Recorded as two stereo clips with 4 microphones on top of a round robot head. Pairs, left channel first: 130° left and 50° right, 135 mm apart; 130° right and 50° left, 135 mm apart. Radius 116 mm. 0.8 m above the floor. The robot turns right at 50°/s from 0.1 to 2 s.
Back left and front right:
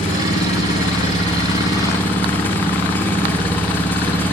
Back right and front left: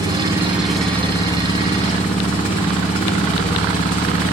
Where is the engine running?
110° left, 3 m; by 4.3 s 155° right, 3 m.